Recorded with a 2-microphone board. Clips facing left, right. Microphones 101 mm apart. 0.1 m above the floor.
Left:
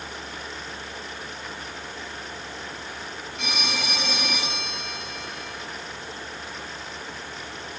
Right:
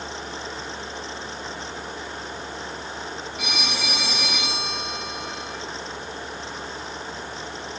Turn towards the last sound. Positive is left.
turn(degrees=-5)  # may be behind; listen again after turning